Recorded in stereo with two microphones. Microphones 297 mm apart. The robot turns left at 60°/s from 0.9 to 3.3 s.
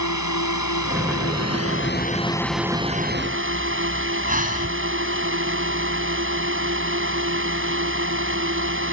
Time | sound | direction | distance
0.0 | a drone | 100° left | ?
4.3 | breathing | 25° right (ahead or behind) | ?